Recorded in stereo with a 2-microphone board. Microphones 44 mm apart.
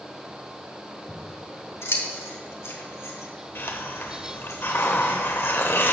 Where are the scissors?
85° left, 1.5 m.